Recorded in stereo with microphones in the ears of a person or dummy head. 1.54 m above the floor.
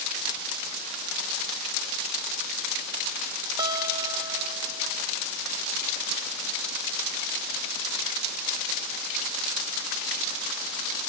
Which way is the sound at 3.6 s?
20° right (ahead or behind).